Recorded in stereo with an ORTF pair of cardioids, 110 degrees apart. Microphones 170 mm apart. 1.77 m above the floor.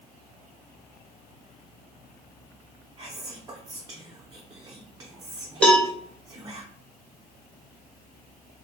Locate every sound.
3.0 s whispering: 20° right, 0.5 m
5.6 s a cowbell: 5° left, 0.8 m